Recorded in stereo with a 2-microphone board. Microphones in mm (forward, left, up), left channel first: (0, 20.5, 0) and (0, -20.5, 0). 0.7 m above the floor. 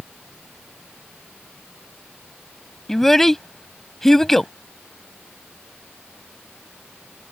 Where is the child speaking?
10° left (ahead or behind).